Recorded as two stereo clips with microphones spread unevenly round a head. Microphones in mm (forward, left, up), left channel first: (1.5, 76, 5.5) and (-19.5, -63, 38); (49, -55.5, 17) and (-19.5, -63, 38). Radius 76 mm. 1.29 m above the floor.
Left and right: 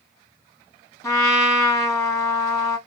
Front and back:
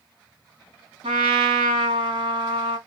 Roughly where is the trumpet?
Behind left.